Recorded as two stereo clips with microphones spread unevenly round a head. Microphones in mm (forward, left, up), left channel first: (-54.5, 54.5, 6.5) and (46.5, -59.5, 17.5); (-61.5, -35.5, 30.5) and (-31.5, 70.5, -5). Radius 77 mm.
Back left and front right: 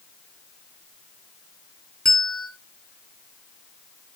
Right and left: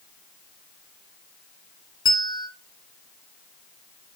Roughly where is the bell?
Behind right.